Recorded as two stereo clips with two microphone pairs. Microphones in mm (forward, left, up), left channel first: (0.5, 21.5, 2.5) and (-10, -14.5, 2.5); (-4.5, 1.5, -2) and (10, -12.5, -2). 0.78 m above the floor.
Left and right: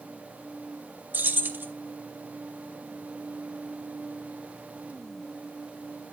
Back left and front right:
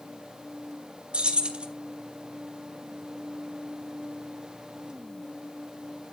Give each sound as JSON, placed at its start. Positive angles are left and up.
{"t": 1.1, "sound": "keys jangling", "azimuth_deg": -80, "distance_m": 1.2}